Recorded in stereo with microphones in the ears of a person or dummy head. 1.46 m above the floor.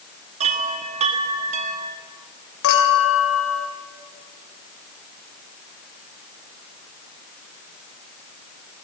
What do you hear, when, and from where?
0.4 s a chime: 35° right (ahead or behind), 1.4 m
2.6 s a clink: 75° left (ahead or behind), 3.5 m